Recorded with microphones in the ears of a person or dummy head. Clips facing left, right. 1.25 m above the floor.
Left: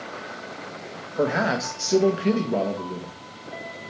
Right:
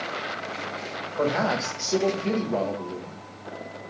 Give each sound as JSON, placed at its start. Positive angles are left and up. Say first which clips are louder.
{"t": 1.2, "sound": "a man speaking", "louder": "left 1 dB", "side_deg": 10, "distance_m": 0.9}